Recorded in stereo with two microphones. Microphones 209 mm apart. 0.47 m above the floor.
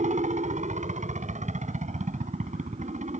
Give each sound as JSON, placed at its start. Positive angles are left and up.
{"t": 0.0, "sound": "a helicopter", "side_deg": -35}